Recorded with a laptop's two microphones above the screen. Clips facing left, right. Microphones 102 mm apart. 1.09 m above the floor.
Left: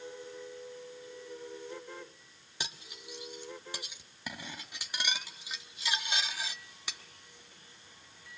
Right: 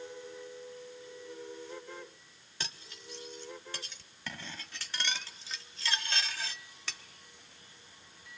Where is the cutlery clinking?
10° left (ahead or behind), 1.0 m.